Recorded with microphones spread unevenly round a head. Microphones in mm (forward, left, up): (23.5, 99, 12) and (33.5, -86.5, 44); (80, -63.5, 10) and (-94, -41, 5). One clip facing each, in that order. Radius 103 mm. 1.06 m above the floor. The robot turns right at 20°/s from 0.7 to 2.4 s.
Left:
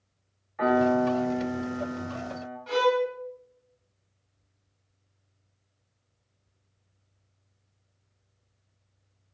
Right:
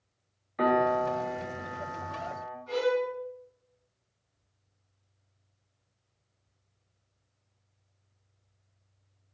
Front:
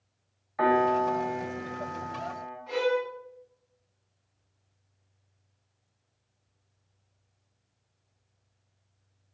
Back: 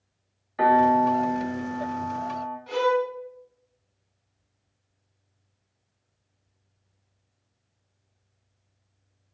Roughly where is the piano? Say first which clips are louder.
Left 3 dB, back 4 dB; behind right.